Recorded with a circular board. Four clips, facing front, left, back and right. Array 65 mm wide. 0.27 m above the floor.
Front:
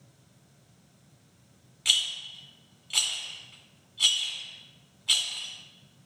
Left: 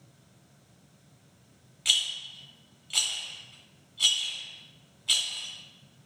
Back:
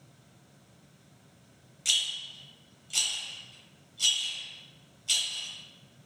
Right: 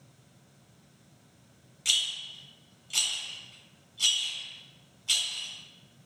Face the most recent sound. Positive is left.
turn(degrees=35)